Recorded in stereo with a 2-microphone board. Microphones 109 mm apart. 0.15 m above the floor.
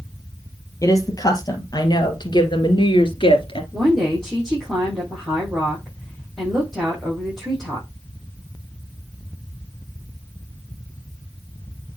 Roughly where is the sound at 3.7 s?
Centre.